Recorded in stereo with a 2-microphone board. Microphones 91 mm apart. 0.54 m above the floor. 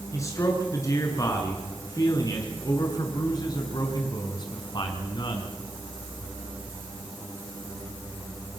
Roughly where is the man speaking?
Left.